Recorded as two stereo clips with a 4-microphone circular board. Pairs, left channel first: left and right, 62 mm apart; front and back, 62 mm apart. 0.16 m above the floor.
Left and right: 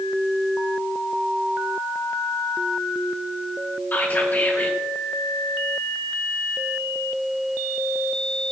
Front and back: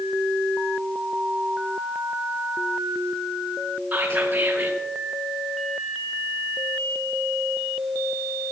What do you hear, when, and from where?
3.9 s whispering: 130° left, 2 m